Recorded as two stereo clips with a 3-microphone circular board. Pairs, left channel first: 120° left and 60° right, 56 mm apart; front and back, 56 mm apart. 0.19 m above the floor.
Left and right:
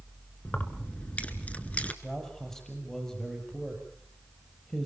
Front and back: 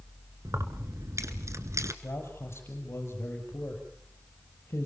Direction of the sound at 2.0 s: 35° left.